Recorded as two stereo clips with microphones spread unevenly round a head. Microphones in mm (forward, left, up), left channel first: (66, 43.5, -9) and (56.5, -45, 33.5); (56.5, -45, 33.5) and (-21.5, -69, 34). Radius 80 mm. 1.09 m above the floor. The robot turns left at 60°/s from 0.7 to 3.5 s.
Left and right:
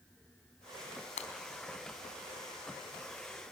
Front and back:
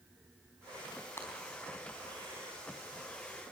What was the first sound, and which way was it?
Breaking glass, 90° left.